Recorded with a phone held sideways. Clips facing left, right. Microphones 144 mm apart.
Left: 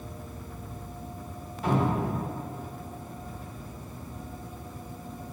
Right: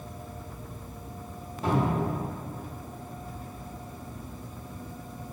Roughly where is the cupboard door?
Right.